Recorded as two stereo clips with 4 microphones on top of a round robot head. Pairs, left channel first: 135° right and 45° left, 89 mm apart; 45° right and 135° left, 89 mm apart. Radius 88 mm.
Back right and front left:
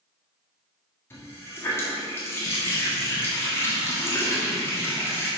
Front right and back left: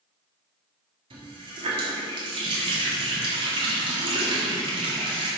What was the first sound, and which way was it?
A running tap, 160° left.